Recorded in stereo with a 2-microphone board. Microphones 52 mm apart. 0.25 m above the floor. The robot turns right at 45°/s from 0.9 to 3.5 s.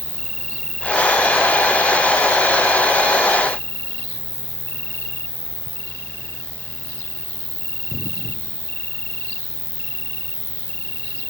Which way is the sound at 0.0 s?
15° left.